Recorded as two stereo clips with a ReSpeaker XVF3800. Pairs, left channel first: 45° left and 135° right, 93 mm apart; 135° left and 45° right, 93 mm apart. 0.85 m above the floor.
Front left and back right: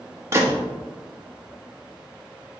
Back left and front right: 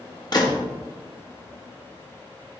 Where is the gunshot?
170° left, 1.5 m.